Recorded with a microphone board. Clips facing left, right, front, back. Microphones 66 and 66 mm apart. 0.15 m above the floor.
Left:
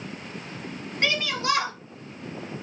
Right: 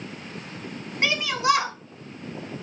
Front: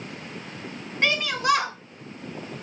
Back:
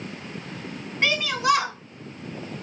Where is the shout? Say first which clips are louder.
Right 4 dB, back 1 dB; 100° right, 1.7 m.